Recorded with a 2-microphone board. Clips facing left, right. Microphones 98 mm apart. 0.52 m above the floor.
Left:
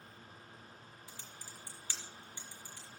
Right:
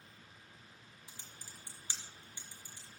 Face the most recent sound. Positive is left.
turn(degrees=-20)  # may be behind; listen again after turning